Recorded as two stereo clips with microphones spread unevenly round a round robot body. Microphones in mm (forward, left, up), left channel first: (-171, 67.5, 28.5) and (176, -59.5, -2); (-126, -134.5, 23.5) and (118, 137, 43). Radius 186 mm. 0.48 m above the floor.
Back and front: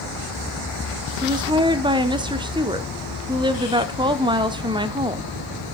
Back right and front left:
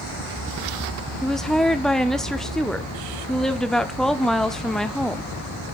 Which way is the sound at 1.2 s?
55° right.